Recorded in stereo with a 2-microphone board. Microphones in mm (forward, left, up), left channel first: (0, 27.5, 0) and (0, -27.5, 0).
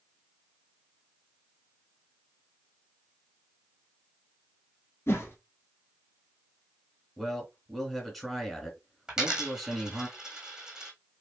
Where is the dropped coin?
10° right (ahead or behind), 1.6 m.